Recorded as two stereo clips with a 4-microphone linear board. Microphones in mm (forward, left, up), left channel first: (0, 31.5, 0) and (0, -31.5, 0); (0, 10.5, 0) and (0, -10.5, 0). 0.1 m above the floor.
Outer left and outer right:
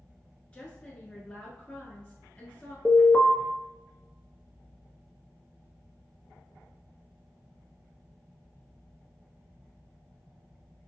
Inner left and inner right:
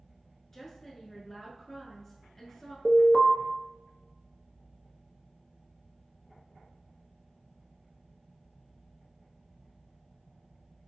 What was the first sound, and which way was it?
A woman speaking, 20° left (ahead or behind).